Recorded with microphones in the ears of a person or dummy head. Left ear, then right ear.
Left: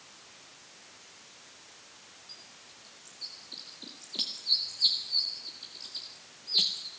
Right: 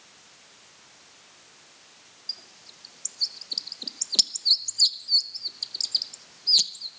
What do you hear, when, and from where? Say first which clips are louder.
2.3 s a bird: right 14 dB; 85° right, 0.9 m